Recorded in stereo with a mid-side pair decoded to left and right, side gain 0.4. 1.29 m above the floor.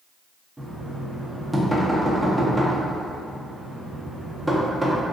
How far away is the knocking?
About 0.8 m.